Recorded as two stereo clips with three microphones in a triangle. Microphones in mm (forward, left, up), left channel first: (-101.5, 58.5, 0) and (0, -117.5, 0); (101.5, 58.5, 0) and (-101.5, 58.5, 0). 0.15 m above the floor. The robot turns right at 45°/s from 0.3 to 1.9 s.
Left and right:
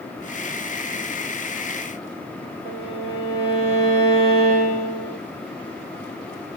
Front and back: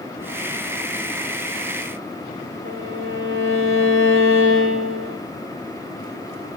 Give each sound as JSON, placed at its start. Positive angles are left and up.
{"t": 2.6, "sound": "a violin", "azimuth_deg": 0, "distance_m": 3.0}